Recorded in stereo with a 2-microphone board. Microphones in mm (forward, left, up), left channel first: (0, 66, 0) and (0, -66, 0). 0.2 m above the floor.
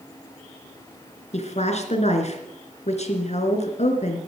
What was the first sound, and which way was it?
A woman speaking, 55° left (ahead or behind).